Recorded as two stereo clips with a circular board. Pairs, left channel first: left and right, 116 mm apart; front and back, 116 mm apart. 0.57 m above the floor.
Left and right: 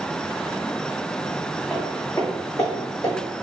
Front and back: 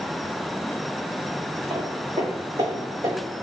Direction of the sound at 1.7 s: 170° left.